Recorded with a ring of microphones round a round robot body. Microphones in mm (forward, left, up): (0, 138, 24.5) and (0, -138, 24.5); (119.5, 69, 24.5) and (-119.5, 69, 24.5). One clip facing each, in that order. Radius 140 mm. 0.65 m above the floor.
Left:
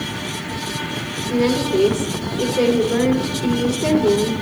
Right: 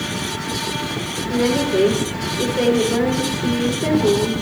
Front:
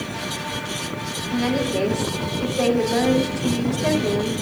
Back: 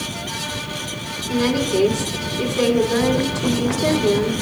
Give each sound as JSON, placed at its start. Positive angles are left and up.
{"t": 1.3, "sound": "a woman speaking", "azimuth_deg": 175, "distance_m": 2.5}